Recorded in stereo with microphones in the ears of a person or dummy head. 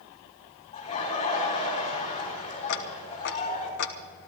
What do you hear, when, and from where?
0.7 s laughter: 30° left (ahead or behind), 4.5 m
2.7 s ticking: 60° left (ahead or behind), 1.0 m